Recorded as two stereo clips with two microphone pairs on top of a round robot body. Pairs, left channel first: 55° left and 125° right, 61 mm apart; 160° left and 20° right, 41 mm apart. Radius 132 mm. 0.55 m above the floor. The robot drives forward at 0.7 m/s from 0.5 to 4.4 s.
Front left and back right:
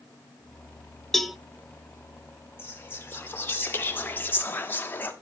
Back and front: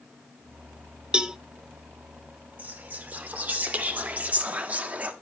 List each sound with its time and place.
1.1 s a cowbell: 20° right, 0.8 m; by 1.4 s 25° right, 0.8 m
2.6 s whispering: 5° left, 3 m